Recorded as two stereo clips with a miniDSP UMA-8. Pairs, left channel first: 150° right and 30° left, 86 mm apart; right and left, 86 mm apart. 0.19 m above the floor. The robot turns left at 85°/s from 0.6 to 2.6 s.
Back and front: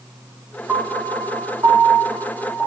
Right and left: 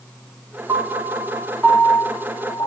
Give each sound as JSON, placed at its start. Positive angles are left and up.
{"t": 0.7, "sound": "a piano", "azimuth_deg": 105, "distance_m": 0.6}